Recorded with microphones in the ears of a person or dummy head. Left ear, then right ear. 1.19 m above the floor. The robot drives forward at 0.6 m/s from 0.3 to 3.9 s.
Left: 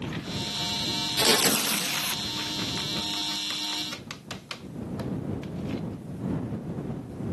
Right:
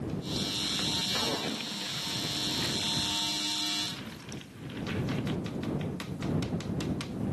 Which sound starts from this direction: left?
Tearing paper, at 1.2 s.